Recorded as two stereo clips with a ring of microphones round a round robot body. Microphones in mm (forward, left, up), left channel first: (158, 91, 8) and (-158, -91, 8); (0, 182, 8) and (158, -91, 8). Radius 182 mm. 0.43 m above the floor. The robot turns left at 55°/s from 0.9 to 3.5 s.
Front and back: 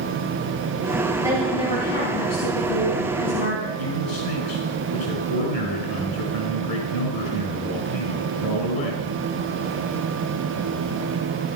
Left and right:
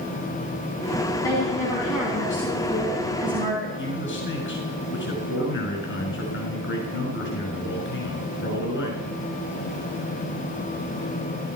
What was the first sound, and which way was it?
A woman speaking, 130° left.